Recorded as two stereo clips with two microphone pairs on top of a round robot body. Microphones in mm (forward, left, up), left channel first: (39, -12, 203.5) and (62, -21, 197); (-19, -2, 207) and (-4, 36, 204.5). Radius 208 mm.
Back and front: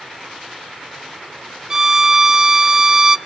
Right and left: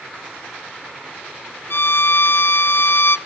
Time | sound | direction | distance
1.7 | a violin | 85° right | 0.6 m